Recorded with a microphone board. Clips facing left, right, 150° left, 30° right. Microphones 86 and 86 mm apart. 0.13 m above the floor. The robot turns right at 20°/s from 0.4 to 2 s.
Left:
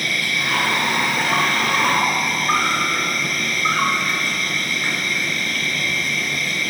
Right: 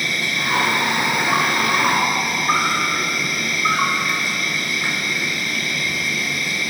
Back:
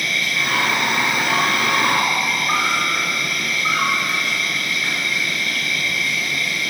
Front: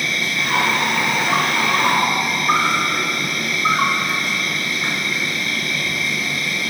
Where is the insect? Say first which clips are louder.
Even, even; 50° right, 2.5 m; by 6.7 s 15° right, 2.5 m.